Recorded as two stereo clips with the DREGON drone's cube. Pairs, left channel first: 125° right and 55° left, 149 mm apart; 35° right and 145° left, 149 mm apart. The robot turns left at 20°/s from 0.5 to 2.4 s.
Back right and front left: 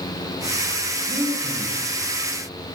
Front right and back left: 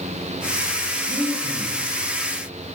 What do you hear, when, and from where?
1.1 s breathing: 110° left, 5 m; by 1.8 s 100° left, 5 m